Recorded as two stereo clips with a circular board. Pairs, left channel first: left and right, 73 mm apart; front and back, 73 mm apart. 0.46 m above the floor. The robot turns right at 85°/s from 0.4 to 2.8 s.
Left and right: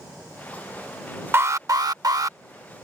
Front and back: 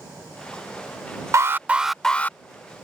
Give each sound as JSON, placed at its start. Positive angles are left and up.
{"t": 1.3, "sound": "an alarm", "azimuth_deg": -140}